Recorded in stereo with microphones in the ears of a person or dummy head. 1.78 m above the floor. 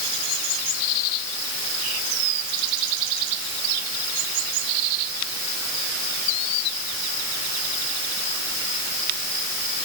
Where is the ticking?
No ticking in this recording.